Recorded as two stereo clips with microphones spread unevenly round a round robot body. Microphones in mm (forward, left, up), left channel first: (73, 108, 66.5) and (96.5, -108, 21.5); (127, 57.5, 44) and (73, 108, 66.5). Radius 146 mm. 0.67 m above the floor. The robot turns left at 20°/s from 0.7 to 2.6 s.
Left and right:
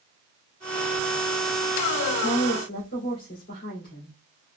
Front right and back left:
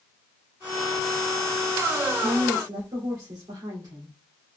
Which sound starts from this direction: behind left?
A woman speaking, at 2.2 s.